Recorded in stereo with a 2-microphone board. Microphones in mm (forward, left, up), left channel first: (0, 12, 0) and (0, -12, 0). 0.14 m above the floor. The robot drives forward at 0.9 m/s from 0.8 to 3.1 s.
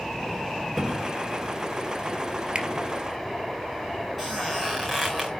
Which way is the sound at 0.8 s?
10° left (ahead or behind).